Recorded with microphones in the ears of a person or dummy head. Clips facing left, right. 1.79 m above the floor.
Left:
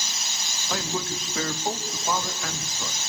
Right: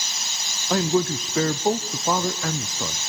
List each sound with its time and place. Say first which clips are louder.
0.7 s a man speaking: right 9 dB; 40° right (ahead or behind), 0.6 m